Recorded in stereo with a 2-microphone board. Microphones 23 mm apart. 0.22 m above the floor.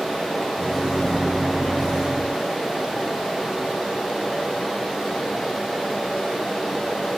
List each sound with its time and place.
0.5 s a microwave: 25° right (ahead or behind), 1.1 m